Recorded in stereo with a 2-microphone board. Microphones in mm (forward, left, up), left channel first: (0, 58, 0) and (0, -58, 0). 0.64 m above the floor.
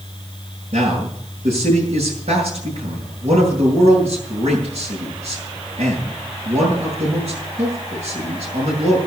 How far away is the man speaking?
About 9 m.